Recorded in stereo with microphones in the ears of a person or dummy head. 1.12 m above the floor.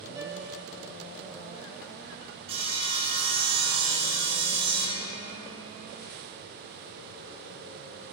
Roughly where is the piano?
Centre.